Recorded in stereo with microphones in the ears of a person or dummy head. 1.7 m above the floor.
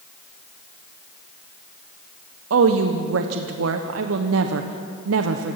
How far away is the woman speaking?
About 1.0 m.